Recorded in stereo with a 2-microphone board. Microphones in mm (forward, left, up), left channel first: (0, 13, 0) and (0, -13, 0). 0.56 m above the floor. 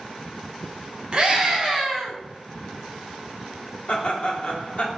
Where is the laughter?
45° left (ahead or behind), 1.2 m.